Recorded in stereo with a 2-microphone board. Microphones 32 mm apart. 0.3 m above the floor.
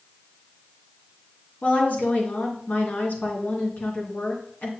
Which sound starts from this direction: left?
A woman speaking, at 1.6 s.